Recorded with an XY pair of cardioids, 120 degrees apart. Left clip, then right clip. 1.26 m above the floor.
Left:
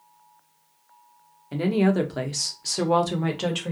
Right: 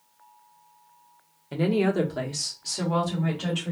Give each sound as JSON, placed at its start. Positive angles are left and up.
{"t": 1.5, "sound": "a woman speaking", "azimuth_deg": -5, "distance_m": 0.7}